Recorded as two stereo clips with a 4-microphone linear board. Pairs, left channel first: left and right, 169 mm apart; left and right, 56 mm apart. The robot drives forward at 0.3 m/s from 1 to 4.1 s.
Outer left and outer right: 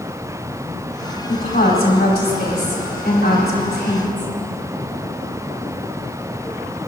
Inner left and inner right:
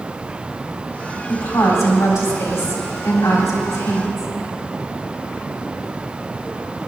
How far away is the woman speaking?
About 3.5 m.